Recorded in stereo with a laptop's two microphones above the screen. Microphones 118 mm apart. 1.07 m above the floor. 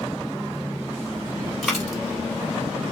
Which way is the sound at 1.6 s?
Centre (ahead or behind).